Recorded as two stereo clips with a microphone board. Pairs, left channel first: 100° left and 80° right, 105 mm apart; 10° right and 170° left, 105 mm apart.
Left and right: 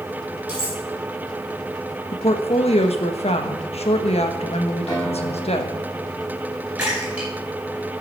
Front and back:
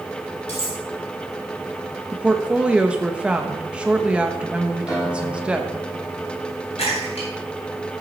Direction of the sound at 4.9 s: 45° left.